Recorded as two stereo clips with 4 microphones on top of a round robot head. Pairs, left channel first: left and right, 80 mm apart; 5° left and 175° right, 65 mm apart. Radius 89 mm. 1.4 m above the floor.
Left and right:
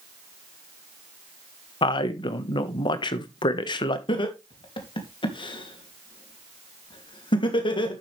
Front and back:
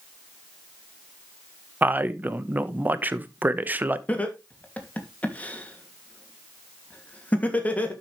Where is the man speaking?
125° left, 1.4 m.